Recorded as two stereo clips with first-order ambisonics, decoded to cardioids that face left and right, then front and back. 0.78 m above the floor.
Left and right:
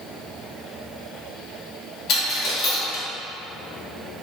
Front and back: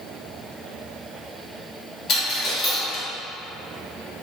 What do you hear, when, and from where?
2.1 s a dropped coin: 50° left, 0.7 m